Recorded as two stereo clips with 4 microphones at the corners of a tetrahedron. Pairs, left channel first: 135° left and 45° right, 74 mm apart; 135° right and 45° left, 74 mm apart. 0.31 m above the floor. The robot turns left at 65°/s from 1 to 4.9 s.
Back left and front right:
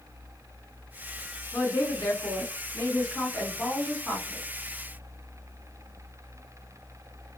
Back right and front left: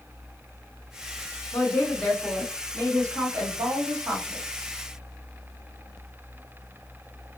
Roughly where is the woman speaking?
Behind.